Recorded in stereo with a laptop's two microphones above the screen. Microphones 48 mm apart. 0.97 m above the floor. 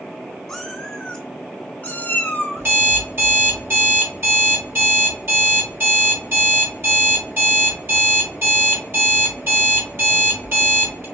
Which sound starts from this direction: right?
An alarm clock, at 2.6 s.